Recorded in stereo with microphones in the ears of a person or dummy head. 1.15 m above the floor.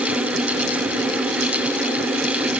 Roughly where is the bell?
I don't hear a bell.